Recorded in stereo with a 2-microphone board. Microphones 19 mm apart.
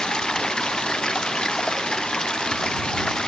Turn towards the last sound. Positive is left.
turn(degrees=50)  # may be behind; listen again after turning